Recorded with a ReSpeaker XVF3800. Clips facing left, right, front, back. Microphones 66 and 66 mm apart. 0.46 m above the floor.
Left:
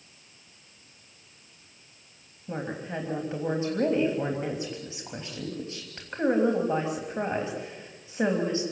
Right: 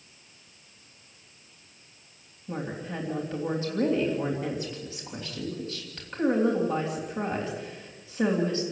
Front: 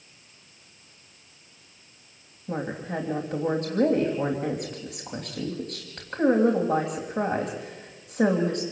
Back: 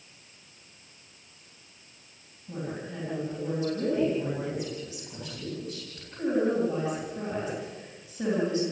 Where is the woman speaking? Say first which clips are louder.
Left 1 dB, front 5 dB; 25° left, 3 m.